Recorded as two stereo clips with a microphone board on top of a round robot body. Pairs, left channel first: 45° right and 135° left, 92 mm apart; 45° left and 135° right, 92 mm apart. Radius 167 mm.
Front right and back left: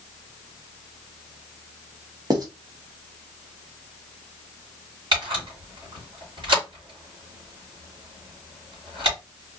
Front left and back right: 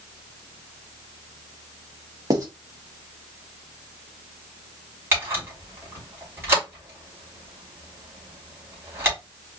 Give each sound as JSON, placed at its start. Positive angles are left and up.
{"t": 2.3, "sound": "writing", "azimuth_deg": 175, "distance_m": 1.6}
{"t": 5.1, "sound": "a camera shutter", "azimuth_deg": 160, "distance_m": 3.5}